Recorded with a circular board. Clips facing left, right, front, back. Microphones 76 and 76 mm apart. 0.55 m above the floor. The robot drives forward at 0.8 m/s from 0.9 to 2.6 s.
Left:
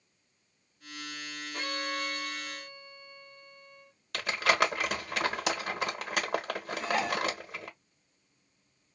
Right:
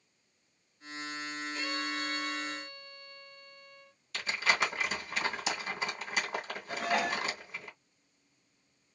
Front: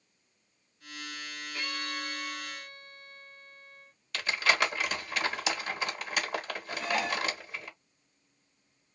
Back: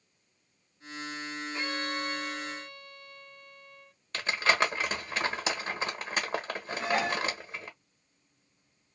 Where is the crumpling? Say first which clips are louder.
Left 4 dB, back 1 dB; 120° left, 1.2 m.